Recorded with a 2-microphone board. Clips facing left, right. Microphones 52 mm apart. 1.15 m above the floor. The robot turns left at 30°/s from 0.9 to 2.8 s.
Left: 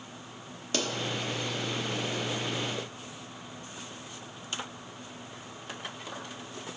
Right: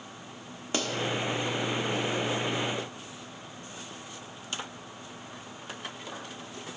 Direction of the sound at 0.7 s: 25° right (ahead or behind).